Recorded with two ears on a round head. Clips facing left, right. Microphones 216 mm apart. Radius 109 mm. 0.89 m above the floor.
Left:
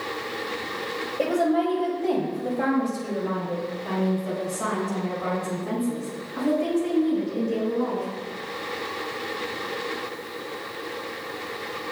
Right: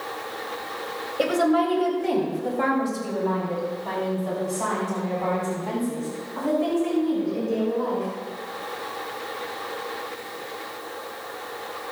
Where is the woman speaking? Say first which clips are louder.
Right 1 dB; 20° right (ahead or behind), 4 m; by 8.1 s 30° left (ahead or behind), 10 m.